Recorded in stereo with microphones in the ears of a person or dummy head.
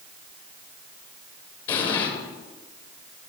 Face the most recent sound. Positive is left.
turn(degrees=35)  # may be behind; listen again after turning